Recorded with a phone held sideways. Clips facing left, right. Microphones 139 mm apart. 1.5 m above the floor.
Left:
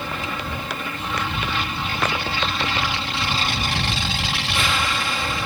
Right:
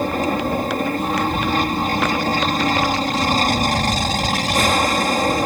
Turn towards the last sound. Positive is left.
turn(degrees=-45)  # may be behind; listen again after turning